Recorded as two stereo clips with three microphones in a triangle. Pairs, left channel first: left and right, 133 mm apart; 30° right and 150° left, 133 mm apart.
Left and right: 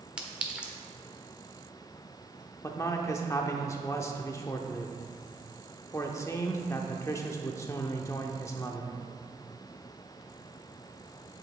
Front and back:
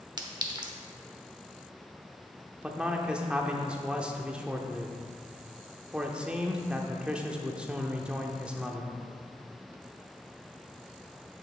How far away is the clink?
About 0.9 m.